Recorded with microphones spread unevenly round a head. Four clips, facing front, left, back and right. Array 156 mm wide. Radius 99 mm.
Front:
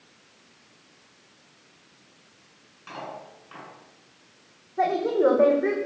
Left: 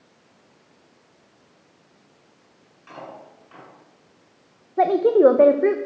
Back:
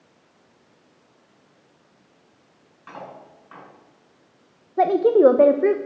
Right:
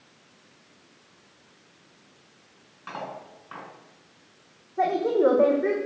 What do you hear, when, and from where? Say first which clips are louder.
2.9 s cutlery clinking: right 3 dB, front 1 dB; 90° right, 6.5 m
4.8 s a woman speaking: left 7 dB, back 7 dB; 145° left, 1.0 m